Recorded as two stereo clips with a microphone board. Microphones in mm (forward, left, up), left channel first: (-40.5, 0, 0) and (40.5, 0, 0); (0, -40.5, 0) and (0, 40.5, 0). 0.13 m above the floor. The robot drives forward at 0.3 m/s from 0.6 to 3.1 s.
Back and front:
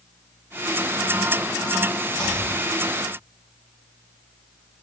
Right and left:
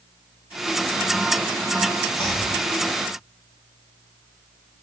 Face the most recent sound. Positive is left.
turn(degrees=-110)